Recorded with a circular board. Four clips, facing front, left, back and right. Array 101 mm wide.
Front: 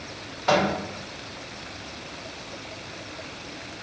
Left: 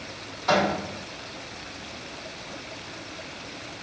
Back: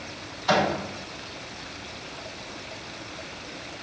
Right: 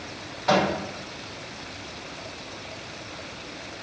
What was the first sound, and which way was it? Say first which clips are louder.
A microwave: right 1 dB, front 1 dB; 20° right.